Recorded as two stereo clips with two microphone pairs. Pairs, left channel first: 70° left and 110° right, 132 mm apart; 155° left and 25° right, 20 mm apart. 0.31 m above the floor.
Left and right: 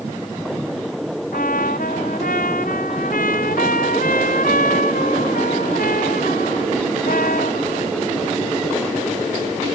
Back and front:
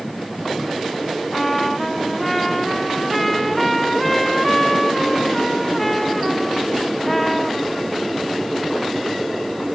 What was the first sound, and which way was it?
A trumpet, 70° left.